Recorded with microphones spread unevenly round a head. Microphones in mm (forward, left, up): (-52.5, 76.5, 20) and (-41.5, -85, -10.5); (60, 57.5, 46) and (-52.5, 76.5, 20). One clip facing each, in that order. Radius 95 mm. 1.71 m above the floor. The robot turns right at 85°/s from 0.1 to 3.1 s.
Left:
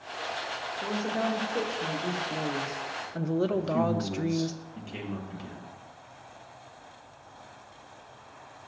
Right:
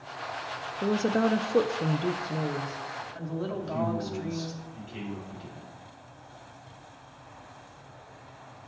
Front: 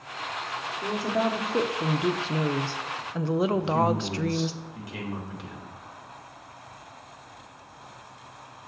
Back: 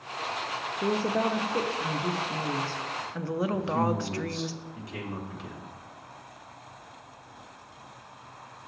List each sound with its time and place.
0.8 s a woman speaking: 140° right, 0.6 m; by 4.5 s 55° left, 0.6 m
3.5 s a man speaking: 75° left, 2 m